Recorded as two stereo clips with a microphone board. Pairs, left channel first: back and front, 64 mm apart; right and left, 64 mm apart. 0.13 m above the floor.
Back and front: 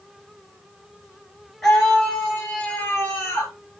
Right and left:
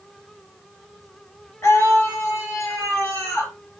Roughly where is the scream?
Right.